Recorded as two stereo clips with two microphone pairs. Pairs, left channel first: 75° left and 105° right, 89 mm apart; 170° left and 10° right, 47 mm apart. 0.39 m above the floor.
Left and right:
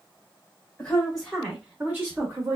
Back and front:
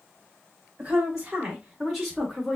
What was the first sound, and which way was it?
A woman speaking, 15° left.